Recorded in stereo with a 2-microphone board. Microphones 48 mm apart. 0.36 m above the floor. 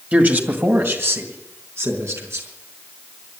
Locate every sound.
0.1 s a man speaking: 35° right (ahead or behind), 1.9 m; by 2.5 s 75° right (ahead or behind), 4.5 m